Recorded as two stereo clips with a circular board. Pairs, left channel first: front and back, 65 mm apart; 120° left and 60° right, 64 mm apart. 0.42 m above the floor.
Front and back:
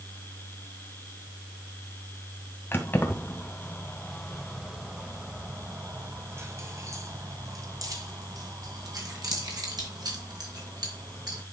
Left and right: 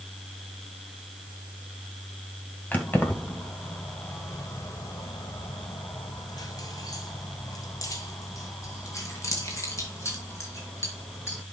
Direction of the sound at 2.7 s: 60° left.